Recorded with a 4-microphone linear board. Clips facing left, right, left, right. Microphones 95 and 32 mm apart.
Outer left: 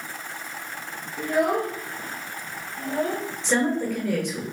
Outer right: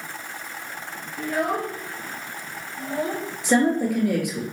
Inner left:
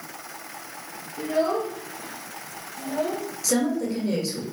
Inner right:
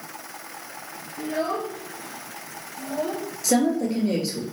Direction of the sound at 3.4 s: 10° right (ahead or behind).